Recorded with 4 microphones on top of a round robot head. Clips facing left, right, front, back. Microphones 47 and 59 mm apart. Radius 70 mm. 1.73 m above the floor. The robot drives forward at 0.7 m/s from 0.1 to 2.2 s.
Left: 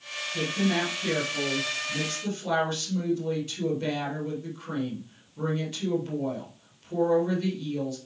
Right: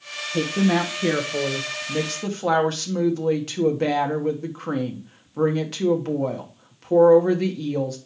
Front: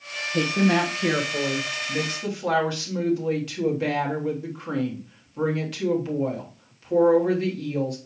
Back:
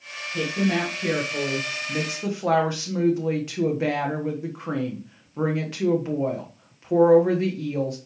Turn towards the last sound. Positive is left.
turn(degrees=-115)